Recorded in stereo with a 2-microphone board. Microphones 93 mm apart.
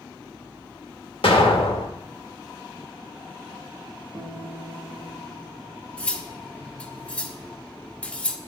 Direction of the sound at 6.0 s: 15° left (ahead or behind).